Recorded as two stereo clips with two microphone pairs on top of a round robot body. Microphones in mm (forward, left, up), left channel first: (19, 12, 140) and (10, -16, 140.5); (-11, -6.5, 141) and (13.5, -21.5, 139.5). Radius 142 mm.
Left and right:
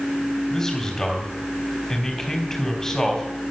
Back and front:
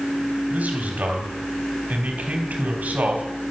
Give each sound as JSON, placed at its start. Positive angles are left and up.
{"t": 0.5, "sound": "a man speaking", "azimuth_deg": -5, "distance_m": 3.5}